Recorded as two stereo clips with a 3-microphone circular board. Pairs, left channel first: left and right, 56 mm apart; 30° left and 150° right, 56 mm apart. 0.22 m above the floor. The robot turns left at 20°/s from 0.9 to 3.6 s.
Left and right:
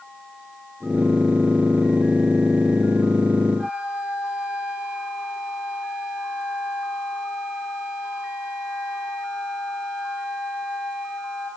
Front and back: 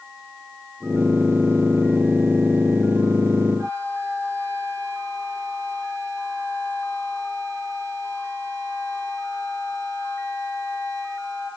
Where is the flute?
155° right, 9.5 m.